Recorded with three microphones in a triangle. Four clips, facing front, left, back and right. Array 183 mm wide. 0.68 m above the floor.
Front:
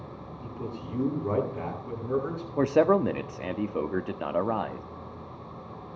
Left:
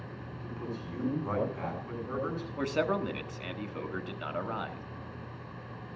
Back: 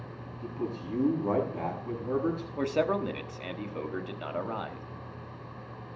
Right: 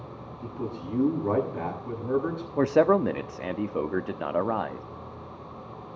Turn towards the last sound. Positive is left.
turn(degrees=-55)